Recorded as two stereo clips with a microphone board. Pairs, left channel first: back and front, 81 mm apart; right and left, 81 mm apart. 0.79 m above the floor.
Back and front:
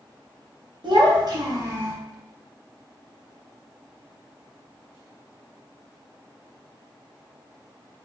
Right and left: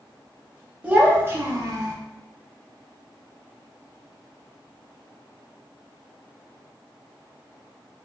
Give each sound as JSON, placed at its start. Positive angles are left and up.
{"t": 0.8, "sound": "a child speaking", "azimuth_deg": 15, "distance_m": 1.0}